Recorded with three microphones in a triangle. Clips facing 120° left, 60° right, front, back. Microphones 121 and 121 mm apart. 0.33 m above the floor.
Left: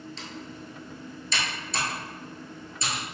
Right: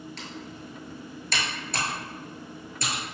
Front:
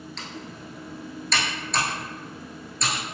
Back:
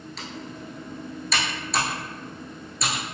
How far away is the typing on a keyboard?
About 0.9 m.